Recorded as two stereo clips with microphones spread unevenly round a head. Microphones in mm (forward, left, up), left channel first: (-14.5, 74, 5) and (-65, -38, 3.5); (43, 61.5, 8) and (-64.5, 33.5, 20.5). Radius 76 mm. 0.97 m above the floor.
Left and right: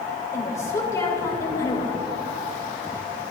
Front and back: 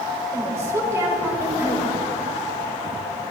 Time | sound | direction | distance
0.3 | a woman speaking | 130° left | 4.5 m